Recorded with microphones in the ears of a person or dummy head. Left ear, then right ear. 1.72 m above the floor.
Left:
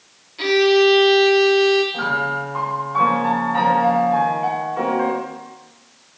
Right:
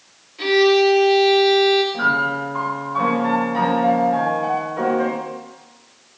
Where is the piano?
30° left (ahead or behind), 3.5 m.